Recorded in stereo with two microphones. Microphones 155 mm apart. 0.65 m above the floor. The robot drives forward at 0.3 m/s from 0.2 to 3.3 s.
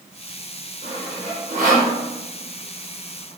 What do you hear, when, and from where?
0.8 s sawing: 40° right (ahead or behind), 0.9 m; by 1.9 s 60° right (ahead or behind), 0.7 m